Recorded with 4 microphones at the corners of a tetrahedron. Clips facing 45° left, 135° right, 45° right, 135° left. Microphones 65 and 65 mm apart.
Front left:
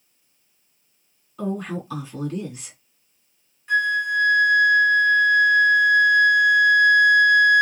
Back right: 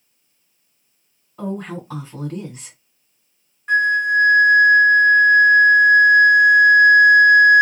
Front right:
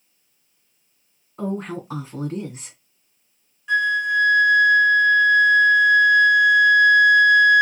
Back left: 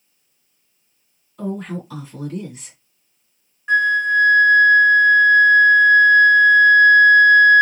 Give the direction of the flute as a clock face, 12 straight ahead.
6 o'clock.